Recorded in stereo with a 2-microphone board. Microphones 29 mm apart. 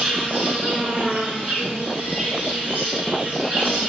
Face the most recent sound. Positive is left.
turn(degrees=-55)  # may be behind; listen again after turning